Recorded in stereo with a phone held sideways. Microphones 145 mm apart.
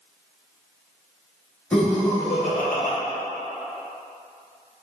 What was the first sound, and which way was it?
Laughter, 10° left (ahead or behind).